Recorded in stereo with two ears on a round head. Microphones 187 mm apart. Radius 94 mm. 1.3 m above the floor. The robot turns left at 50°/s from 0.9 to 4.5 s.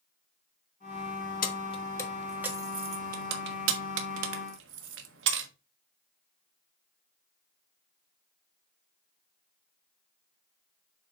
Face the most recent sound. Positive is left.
turn(degrees=-65)  # may be behind; listen again after turning